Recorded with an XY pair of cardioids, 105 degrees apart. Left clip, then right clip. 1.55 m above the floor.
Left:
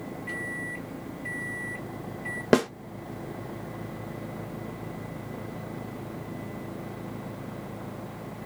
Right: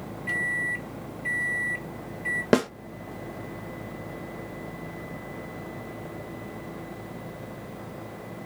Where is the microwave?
40° right, 1.4 m.